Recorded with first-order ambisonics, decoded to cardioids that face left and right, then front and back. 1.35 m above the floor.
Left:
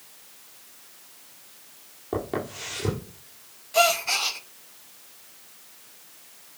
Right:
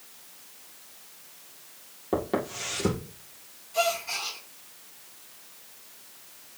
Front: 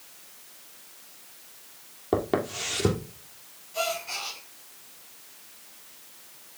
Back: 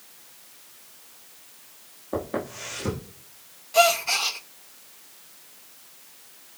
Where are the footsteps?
10° right, 2.5 m.